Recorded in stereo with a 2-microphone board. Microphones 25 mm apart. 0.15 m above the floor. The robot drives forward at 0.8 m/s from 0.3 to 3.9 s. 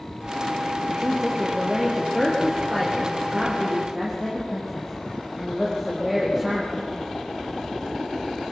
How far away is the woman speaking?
About 4 m.